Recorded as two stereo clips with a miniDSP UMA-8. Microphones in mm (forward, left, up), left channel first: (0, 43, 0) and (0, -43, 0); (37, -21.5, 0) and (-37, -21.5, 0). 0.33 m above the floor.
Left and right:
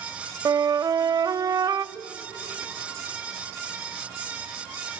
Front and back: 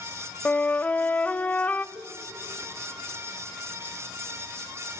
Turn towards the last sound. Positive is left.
turn(degrees=-150)